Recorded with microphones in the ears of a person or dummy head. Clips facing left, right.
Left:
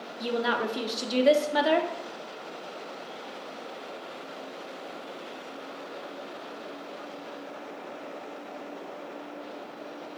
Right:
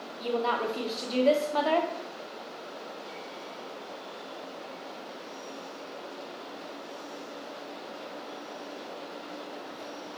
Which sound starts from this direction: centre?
A woman speaking, at 0.2 s.